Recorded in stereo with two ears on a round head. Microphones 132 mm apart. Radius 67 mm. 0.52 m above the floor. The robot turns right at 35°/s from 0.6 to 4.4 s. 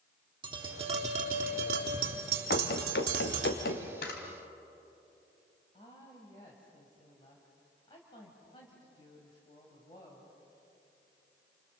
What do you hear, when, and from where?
0.4 s tapping: 150° right, 3.5 m; by 3.5 s 45° right, 3.5 m
2.5 s running footsteps: 65° left (ahead or behind), 3 m; by 3.9 s 75° left (ahead or behind), 2.5 m
4.0 s a camera shutter: 70° left (ahead or behind), 3 m; by 4.2 s 75° left (ahead or behind), 3 m
5.7 s a woman speaking: 30° left (ahead or behind), 3.5 m